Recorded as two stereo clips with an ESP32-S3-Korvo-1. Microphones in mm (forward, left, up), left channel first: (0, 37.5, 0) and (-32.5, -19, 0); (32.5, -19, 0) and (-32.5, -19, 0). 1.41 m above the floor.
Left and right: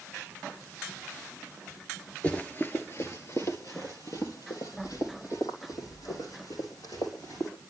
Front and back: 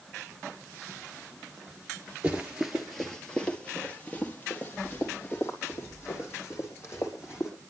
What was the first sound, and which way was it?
Running footsteps, 120° left.